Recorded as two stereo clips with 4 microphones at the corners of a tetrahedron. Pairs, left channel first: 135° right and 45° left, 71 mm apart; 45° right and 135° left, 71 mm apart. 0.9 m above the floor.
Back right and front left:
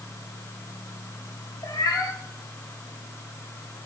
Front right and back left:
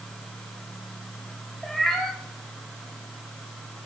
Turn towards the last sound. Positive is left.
turn(degrees=-135)